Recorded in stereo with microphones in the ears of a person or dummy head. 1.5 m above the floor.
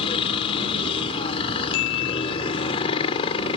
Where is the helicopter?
25° left (ahead or behind).